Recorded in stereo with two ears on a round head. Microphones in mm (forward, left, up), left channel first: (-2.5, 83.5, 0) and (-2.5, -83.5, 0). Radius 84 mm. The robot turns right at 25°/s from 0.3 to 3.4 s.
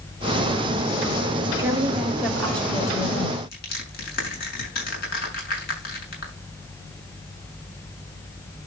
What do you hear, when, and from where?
1.6 s a woman speaking: 20° right, 4.5 m; by 3.4 s 25° left, 4.5 m
3.5 s crushing: 55° left (ahead or behind), 6 m